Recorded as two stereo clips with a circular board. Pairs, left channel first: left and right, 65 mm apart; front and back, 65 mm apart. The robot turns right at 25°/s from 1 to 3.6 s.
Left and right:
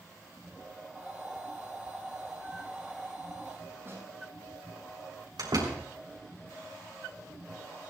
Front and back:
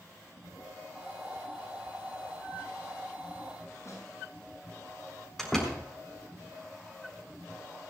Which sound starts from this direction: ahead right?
A snare drum, at 3.9 s.